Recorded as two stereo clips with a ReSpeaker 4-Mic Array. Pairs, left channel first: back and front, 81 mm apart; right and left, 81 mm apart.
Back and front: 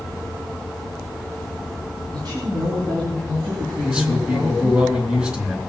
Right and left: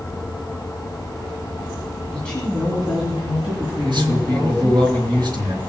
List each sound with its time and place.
2.1 s a woman speaking: 15° right, 2.5 m; by 4.8 s 25° left, 5 m
3.8 s a man speaking: 75° left, 3 m